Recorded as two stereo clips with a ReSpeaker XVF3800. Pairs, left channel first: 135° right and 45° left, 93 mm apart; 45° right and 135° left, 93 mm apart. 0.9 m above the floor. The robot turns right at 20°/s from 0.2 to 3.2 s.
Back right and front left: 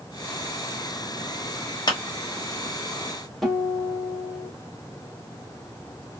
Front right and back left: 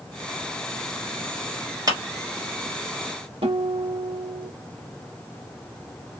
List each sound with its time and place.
1.9 s a clap: straight behind, 1.1 m; by 2.0 s 175° right, 1.1 m
3.4 s a guitar: 135° left, 1.2 m